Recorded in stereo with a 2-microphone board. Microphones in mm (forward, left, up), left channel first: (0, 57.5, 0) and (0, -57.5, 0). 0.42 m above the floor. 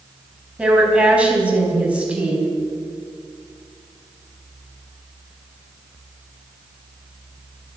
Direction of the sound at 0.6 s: 10° right (ahead or behind).